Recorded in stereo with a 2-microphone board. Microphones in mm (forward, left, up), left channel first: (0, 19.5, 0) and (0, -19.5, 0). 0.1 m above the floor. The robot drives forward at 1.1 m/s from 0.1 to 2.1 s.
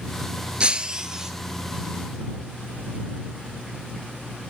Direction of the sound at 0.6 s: 30° right (ahead or behind).